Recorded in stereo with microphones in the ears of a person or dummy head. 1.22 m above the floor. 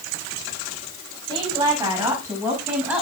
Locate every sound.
1.3 s a woman speaking: 25° right (ahead or behind), 7 m; by 3.0 s 10° right (ahead or behind), 7.5 m